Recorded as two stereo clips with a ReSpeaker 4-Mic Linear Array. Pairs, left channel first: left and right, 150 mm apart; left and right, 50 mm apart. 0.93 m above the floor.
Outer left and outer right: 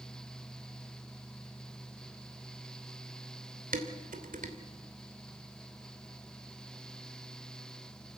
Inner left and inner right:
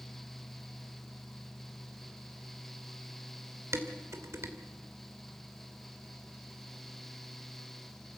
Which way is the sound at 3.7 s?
65° right (ahead or behind).